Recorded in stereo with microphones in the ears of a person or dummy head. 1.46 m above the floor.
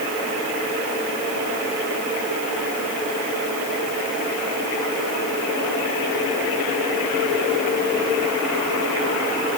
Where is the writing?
No writing in this recording.